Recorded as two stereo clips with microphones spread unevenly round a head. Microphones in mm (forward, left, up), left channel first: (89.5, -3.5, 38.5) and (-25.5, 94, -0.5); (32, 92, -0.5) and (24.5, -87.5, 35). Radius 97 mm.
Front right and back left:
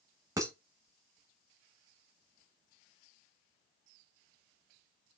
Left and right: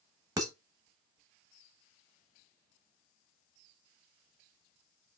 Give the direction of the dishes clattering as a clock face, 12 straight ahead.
5 o'clock.